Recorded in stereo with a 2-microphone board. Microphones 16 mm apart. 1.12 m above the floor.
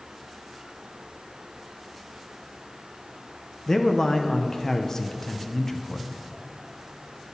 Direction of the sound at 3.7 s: 30° left (ahead or behind).